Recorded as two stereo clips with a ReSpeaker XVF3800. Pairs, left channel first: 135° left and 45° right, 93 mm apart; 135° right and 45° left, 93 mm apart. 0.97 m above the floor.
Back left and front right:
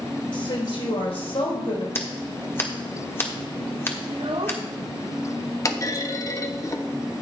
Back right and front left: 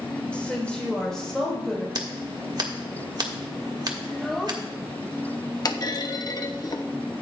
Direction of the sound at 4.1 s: 45° right.